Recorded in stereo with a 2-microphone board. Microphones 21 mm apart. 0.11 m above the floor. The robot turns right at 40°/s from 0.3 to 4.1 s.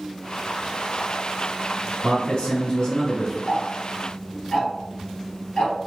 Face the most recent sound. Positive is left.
turn(degrees=45)  # may be behind; listen again after turning